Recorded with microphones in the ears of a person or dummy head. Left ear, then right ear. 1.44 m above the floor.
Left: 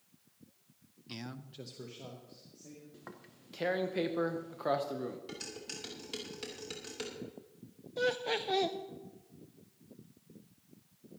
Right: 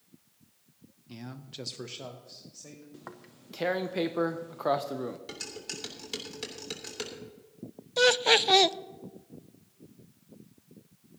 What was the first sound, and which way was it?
A man speaking, 35° left (ahead or behind).